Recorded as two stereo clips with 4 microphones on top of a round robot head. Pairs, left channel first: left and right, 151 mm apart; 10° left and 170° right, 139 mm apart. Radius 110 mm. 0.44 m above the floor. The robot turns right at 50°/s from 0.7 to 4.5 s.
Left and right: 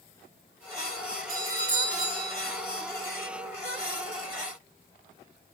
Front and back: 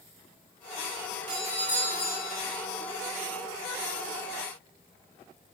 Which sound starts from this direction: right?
A doorbell, at 1.3 s.